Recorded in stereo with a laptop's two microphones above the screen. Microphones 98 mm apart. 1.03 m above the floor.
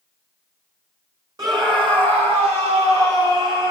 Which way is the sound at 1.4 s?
40° right (ahead or behind).